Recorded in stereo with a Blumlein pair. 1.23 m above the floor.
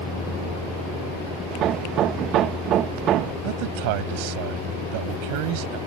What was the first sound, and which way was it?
A vehicle, 10° left.